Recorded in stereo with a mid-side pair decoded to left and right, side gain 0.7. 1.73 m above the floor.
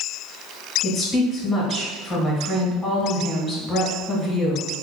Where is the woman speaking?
20° left, 1.7 m.